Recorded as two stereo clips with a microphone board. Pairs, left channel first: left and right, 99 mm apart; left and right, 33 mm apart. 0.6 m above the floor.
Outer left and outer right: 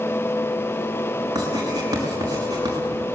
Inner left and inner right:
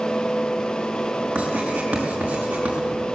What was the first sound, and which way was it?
Writing, 35° right (ahead or behind).